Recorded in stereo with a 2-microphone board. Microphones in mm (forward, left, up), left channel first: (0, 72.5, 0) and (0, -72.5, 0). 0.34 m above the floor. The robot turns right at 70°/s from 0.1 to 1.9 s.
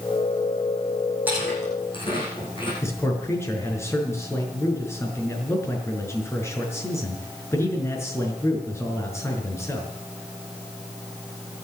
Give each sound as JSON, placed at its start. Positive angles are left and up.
{"t": 1.3, "sound": "chewing", "side_deg": -10, "distance_m": 9.0}
{"t": 2.8, "sound": "a man speaking", "side_deg": 15, "distance_m": 5.5}